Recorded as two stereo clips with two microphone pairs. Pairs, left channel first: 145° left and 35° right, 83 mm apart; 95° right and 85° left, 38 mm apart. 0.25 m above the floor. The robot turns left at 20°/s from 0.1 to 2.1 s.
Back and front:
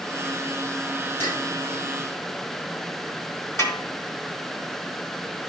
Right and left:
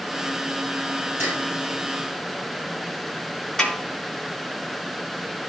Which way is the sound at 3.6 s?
165° right.